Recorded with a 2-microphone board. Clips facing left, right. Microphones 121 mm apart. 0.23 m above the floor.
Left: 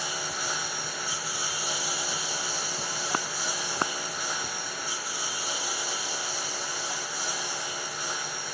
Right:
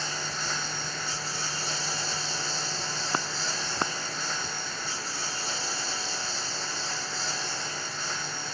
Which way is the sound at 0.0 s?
10° left (ahead or behind).